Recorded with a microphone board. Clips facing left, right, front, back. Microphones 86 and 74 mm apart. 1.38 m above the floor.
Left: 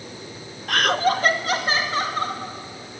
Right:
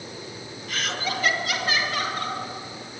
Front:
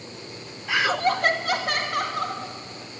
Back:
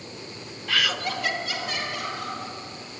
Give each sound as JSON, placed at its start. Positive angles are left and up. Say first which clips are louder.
{"t": 0.7, "sound": "laughter", "louder": "left 10 dB, front 5 dB", "azimuth_deg": 75, "distance_m": 0.6}